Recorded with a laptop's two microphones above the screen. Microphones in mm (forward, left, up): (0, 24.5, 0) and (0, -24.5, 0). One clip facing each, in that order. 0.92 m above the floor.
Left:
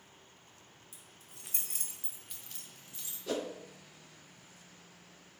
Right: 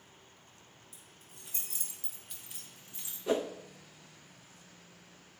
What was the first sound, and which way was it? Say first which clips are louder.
Keys jangling: even; 85° left.